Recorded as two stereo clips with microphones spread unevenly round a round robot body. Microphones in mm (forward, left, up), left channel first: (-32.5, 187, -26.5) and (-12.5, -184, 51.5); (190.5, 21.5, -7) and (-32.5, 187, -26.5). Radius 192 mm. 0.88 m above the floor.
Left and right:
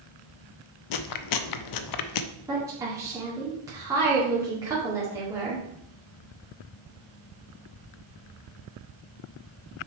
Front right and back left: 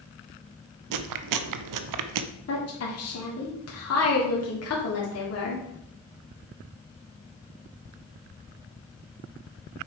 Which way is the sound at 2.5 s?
Straight ahead.